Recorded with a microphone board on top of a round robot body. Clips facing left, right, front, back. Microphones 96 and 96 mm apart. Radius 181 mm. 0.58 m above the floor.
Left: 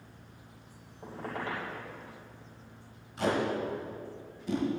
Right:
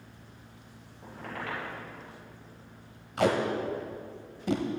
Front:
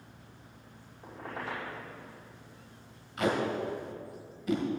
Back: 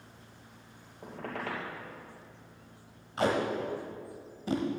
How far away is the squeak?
About 2.5 m.